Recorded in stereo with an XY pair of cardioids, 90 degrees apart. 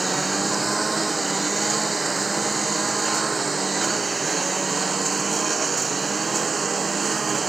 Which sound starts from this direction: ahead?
A lawn mower, at 0.0 s.